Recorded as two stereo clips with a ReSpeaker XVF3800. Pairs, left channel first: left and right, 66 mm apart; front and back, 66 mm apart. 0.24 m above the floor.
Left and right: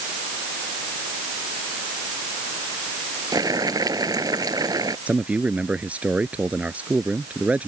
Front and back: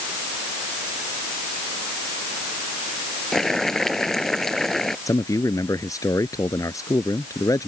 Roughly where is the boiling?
Right.